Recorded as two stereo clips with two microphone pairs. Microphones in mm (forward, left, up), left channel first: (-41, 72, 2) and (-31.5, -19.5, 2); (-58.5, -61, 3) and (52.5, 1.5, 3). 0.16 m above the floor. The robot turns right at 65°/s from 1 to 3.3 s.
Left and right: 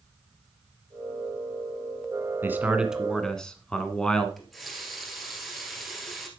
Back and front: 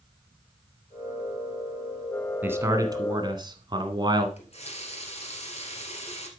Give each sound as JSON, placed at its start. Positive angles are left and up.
{"t": 2.4, "sound": "a man speaking", "azimuth_deg": -35, "distance_m": 1.2}
{"t": 4.4, "sound": "a running tap", "azimuth_deg": -175, "distance_m": 1.8}